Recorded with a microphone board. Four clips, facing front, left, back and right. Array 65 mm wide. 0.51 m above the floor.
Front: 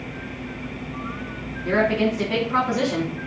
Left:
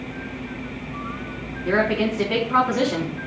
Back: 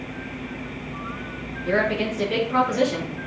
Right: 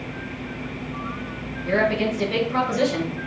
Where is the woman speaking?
55° left, 4 m.